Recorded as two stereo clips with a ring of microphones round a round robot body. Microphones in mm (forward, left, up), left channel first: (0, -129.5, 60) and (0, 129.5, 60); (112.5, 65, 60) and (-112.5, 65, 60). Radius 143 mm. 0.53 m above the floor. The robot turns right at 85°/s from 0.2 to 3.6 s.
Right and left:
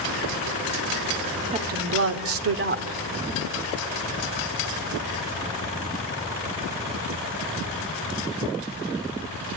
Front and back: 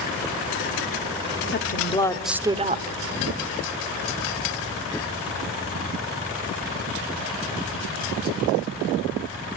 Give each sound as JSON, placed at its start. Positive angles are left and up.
{"t": 1.5, "sound": "a woman speaking", "azimuth_deg": 30, "distance_m": 2.0}